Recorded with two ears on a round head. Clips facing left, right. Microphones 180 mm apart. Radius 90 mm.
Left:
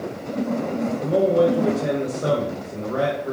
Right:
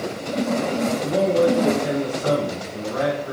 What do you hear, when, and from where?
1.0 s a man speaking: 60° left (ahead or behind), 2 m